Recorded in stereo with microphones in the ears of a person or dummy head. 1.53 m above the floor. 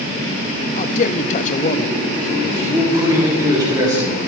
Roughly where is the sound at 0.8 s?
Left.